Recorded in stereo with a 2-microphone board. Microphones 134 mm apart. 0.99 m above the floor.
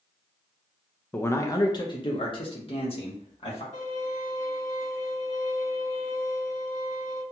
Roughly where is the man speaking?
Centre.